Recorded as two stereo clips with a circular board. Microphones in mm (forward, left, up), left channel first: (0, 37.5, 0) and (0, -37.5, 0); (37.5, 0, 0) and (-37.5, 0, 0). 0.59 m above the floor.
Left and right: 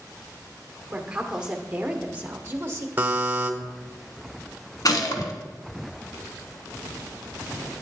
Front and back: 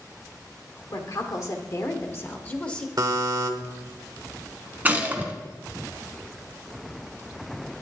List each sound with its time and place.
0.9 s a woman speaking: 5° right, 1.7 m; by 2.9 s 70° right, 1.0 m
3.0 s a buzzer: 150° right, 1.1 m
4.8 s a gunshot: 115° left, 1.2 m